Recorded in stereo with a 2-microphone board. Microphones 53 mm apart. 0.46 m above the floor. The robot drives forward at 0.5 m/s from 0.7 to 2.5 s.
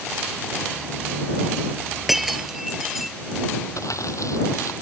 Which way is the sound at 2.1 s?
10° right (ahead or behind).